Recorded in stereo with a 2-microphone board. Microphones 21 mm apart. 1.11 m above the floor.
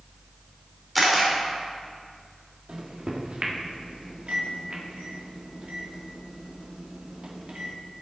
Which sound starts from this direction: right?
A microwave, at 2.7 s.